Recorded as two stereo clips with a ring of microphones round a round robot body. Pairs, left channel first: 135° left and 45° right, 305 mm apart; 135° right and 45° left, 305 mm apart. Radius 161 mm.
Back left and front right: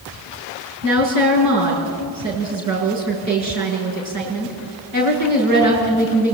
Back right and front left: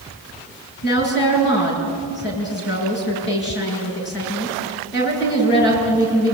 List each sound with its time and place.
0.8 s a woman speaking: 80° right, 9 m